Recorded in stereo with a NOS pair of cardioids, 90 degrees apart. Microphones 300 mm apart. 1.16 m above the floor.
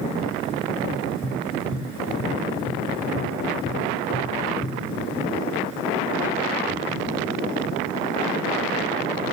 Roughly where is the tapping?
Ahead.